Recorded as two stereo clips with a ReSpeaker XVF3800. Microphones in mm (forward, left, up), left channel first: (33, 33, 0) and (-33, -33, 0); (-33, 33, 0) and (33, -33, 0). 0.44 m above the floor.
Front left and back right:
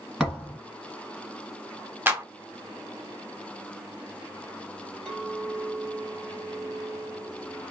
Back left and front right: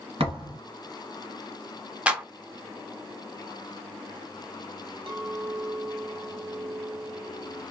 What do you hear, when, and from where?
0.2 s a thud: 50° right, 1.5 m
2.1 s a clap: 100° right, 0.6 m
5.1 s a clink: 45° right, 1.5 m